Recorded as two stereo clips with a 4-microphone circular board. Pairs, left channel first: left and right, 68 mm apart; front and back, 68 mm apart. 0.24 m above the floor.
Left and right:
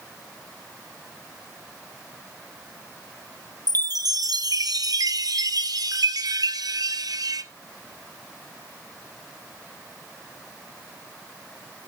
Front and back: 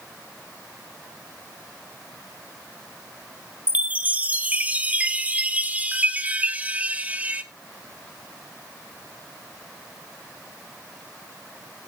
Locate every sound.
3.7 s a chime: 110° right, 1.0 m